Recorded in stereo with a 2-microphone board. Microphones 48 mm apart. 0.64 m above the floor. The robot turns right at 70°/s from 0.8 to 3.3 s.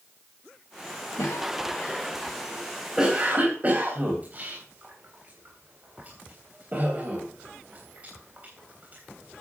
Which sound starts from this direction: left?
A cough, at 1.2 s.